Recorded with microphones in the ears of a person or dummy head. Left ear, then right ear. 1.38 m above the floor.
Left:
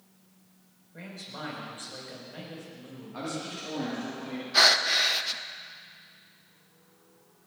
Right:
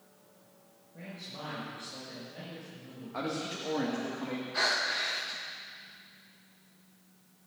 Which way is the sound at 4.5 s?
40° left (ahead or behind).